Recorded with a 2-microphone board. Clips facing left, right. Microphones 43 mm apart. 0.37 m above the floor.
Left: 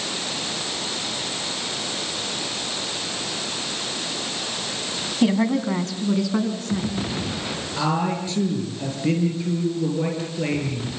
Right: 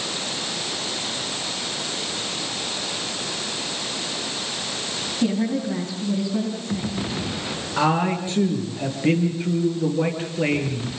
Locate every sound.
5.2 s a woman speaking: 65° left (ahead or behind), 3.5 m; by 7.0 s 70° left (ahead or behind), 5.5 m
7.8 s a man speaking: 30° right (ahead or behind), 7.5 m